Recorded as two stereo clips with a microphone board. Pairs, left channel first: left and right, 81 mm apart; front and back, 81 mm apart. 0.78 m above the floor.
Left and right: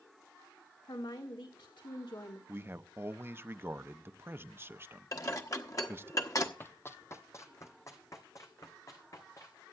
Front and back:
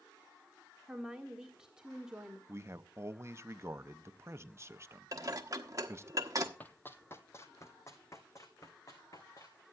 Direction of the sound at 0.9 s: 100° left.